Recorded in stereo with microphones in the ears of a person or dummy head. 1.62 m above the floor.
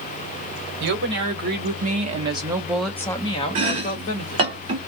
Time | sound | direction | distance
0.8 | a woman speaking | 65° right (ahead or behind) | 1.3 m
3.5 | chopping | 35° right (ahead or behind) | 0.8 m